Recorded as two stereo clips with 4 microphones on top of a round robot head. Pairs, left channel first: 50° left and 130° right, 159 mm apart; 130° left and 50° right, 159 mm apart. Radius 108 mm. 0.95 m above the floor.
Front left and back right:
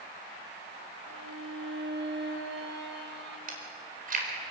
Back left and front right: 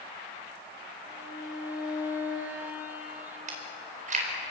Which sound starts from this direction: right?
Chewing, at 3.5 s.